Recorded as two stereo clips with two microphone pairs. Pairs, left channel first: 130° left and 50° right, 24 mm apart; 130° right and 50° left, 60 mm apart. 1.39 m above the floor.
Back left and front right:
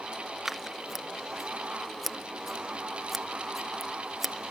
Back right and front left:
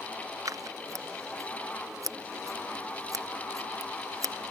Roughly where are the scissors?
Ahead left.